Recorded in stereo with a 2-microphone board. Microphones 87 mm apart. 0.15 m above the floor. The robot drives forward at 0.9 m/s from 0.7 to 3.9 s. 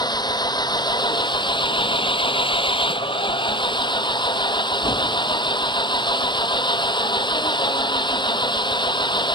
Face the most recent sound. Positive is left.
turn(degrees=60)  # may be behind; listen again after turning